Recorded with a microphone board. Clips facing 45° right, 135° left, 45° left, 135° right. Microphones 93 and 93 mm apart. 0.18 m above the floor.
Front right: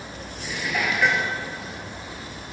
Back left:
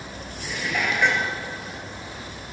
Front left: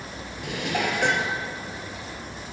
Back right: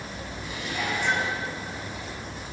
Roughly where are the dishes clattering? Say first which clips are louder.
Even, front left 5 dB; ahead left.